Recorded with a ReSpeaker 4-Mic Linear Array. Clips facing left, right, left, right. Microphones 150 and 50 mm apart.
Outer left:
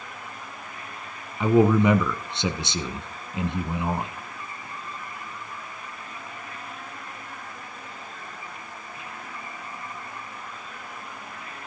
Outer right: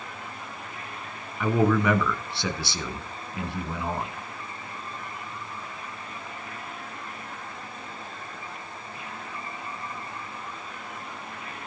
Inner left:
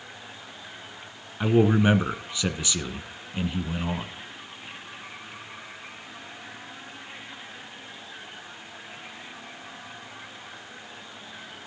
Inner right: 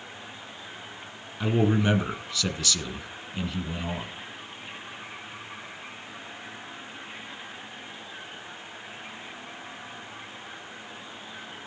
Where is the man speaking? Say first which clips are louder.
Outer left 4 dB, inner left 4 dB; 20° left (ahead or behind), 1.3 m.